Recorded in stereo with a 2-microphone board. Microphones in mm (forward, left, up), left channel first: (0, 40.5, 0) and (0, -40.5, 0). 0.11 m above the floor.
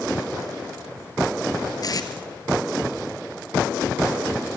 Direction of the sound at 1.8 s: 50° left (ahead or behind).